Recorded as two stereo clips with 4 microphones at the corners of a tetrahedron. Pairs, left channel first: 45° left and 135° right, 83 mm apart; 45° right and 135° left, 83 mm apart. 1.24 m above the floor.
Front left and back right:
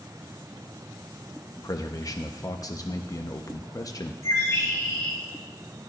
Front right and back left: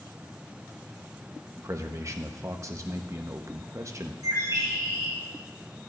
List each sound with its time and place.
1.6 s a man speaking: 85° left, 0.9 m
4.2 s a bird: 95° left, 5 m